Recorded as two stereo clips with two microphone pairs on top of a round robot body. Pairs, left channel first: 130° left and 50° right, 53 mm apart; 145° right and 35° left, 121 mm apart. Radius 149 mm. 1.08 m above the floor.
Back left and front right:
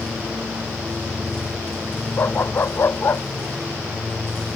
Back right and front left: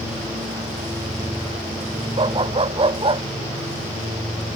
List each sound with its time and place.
2.2 s a dog barking: 80° left